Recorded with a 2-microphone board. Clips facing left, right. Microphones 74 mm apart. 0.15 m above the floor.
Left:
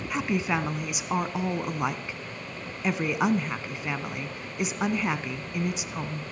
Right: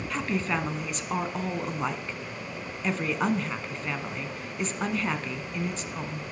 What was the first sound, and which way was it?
A woman speaking, 10° left (ahead or behind).